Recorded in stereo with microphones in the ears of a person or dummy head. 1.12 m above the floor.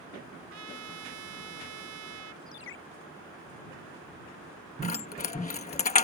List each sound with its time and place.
0.5 s a trumpet: 90° right
2.5 s a ringtone: 80° left
4.8 s keys jangling: 30° left (ahead or behind)